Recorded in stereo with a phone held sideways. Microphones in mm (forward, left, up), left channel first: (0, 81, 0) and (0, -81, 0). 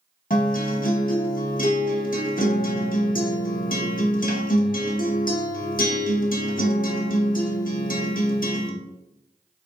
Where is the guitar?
65° left (ahead or behind), 0.7 m.